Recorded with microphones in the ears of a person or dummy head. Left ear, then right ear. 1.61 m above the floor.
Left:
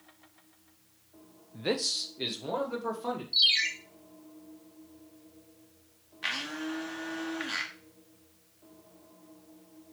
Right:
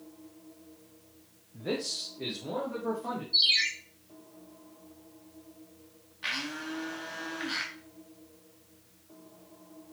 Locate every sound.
1.5 s a man speaking: 65° left (ahead or behind), 0.6 m; by 3.2 s 85° left, 1.9 m
3.3 s a ringtone: 20° left (ahead or behind), 1.6 m
6.2 s a blender: 25° left (ahead or behind), 1.2 m